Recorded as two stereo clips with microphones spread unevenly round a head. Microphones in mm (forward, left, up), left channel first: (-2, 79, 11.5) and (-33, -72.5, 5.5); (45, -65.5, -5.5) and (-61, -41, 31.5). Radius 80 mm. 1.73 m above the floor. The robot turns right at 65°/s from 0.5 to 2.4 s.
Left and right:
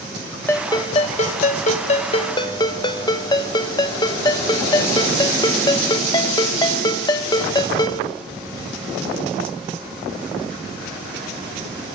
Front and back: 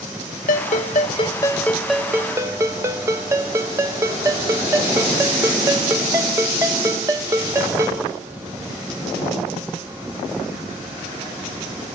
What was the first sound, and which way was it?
A ringtone, 5° left.